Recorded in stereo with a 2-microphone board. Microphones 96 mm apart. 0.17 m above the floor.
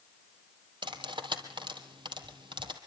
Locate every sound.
0.8 s cutlery clinking: 55° right (ahead or behind), 3 m